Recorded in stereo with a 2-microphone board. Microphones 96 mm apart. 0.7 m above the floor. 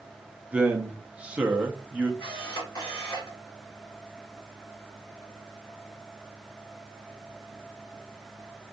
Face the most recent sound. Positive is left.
turn(degrees=55)  # may be behind; listen again after turning